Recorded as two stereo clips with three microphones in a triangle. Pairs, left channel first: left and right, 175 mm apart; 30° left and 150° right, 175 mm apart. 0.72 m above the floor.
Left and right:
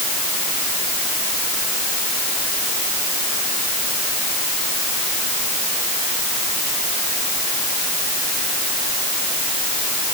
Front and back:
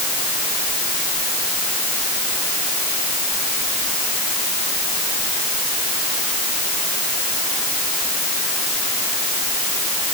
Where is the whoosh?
I don't hear a whoosh.